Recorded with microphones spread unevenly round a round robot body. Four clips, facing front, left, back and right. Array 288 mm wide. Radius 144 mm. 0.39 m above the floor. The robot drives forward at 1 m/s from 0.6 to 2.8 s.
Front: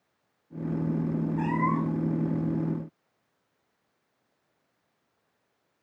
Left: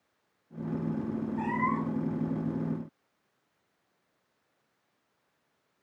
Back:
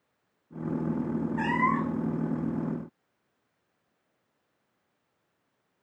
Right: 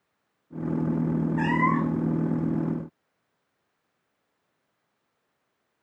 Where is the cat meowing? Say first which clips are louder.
Right 5 dB, back 2 dB; 125° right; by 2.1 s 130° right.